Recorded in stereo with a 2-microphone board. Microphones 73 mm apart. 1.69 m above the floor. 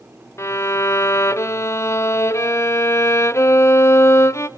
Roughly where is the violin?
Left.